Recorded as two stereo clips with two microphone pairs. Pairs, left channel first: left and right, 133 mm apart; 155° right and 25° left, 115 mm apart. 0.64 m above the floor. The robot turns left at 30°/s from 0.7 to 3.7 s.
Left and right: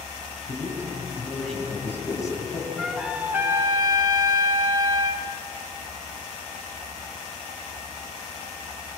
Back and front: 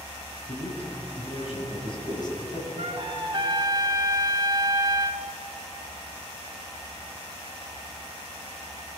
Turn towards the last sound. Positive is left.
turn(degrees=-25)